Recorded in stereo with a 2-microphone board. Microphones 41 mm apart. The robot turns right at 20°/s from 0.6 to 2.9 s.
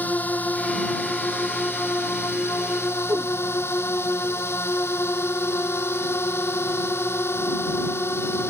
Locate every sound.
0.0 s a drone: 45° left; by 8.5 s 90° left
3.1 s a whoosh: 70° right (ahead or behind)